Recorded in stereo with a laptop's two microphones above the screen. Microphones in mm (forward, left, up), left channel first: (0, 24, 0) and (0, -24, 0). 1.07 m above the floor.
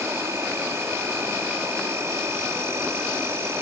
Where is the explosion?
No explosion in this recording.